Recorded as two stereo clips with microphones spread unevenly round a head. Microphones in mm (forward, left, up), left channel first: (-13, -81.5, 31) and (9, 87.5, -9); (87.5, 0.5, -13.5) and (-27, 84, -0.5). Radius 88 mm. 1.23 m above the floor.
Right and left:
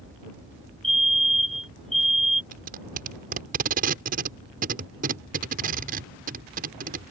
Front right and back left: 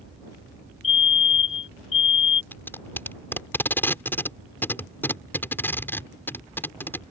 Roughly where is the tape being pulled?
Ahead left.